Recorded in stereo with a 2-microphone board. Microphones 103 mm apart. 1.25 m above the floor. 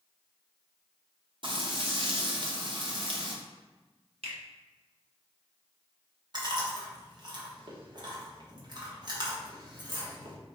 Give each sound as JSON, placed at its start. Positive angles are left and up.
{"t": 1.4, "sound": "frying", "side_deg": -50, "distance_m": 0.8}
{"t": 4.2, "sound": "a finger snap", "side_deg": -75, "distance_m": 1.0}
{"t": 6.3, "sound": "chewing", "side_deg": -45, "distance_m": 1.1}